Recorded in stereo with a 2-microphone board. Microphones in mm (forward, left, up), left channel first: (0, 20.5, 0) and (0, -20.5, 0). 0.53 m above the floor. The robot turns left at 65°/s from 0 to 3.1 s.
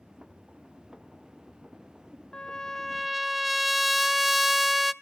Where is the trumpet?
45° left, 0.5 m; by 4.9 s 5° right, 0.5 m.